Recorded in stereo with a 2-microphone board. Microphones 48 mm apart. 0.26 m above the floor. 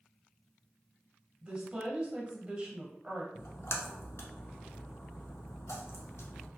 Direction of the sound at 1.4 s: 20° right (ahead or behind).